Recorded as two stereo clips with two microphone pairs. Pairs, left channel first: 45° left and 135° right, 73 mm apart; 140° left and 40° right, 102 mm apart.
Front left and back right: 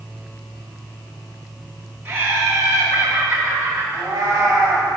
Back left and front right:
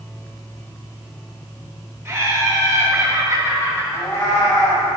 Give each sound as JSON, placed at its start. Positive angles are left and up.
{"t": 2.0, "sound": "laughter", "azimuth_deg": -85, "distance_m": 0.8}
{"t": 3.9, "sound": "a cat meowing", "azimuth_deg": -165, "distance_m": 2.0}